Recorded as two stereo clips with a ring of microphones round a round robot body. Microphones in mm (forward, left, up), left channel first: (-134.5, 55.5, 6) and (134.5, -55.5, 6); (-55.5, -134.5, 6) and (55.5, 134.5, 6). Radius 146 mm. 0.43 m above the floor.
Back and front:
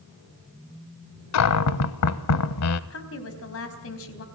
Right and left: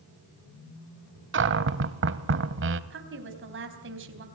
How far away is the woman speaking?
About 3.5 m.